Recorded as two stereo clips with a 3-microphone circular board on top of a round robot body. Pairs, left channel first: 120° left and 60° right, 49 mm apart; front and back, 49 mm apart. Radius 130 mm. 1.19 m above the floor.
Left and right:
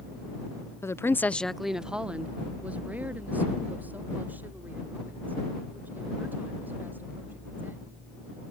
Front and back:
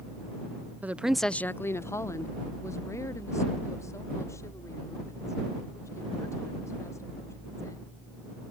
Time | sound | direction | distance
0.8 | a woman speaking | 125° left | ?